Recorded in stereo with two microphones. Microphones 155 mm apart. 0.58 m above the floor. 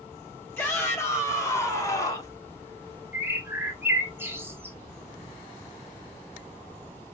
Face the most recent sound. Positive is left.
turn(degrees=-15)  # may be behind; listen again after turning